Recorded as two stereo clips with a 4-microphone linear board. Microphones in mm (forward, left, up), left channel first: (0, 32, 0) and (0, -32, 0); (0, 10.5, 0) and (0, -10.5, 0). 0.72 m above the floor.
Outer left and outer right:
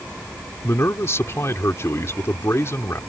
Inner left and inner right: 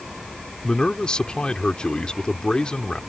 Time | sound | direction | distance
0.6 | a man speaking | 45° left (ahead or behind) | ?